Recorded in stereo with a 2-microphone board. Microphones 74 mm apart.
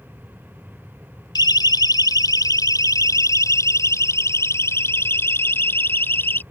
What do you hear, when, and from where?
1.4 s a siren: 70° left (ahead or behind); by 6.4 s 30° left (ahead or behind)